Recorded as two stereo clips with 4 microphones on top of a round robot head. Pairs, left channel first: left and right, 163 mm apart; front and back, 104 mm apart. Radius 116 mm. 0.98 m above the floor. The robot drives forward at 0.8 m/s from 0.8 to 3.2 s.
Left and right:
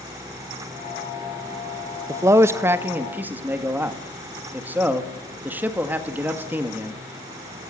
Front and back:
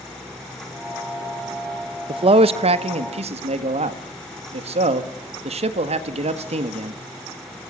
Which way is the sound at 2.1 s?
160° right.